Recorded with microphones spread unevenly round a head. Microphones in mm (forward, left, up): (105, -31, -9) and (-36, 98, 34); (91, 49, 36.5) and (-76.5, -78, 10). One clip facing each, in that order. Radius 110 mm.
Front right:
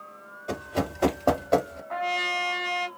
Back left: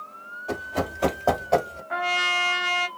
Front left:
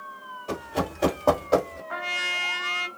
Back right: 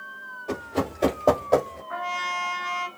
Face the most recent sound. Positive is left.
turn(degrees=65)